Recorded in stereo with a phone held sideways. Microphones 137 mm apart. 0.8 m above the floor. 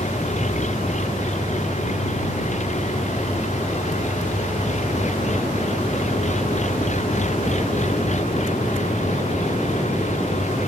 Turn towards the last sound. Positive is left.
turn(degrees=60)  # may be behind; listen again after turning